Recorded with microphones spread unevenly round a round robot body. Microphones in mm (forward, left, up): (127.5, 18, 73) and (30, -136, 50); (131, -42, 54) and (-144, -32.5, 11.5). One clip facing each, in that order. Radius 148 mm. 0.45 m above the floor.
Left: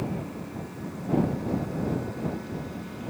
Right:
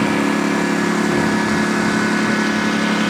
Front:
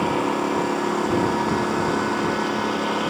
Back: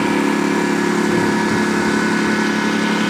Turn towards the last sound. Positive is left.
turn(degrees=-130)